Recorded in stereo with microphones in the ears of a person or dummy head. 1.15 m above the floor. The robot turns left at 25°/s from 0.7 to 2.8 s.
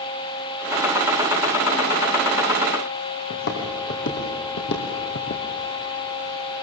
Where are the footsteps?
70° left (ahead or behind), 3.5 m; by 5.5 s 60° left (ahead or behind), 2 m.